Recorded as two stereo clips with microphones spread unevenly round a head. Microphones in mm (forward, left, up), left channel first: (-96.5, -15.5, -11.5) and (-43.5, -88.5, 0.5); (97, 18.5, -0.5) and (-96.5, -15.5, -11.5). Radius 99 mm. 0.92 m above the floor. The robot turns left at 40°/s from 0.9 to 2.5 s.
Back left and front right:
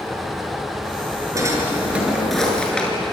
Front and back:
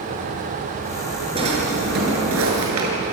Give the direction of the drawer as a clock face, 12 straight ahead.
4 o'clock.